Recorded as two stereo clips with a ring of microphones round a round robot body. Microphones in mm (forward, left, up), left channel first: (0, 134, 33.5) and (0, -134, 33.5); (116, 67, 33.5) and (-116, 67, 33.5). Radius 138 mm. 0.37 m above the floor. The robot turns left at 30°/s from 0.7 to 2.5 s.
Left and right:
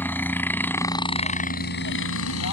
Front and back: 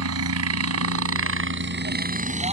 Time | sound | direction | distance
0.0 | a helicopter | 175° left | ?